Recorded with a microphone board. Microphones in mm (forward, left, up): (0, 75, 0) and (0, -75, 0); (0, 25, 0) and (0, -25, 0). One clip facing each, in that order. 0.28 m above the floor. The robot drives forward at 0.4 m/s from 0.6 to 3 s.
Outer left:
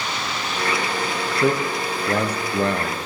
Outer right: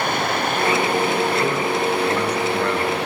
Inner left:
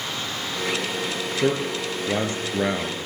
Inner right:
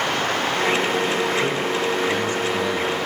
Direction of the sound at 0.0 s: 55° right (ahead or behind).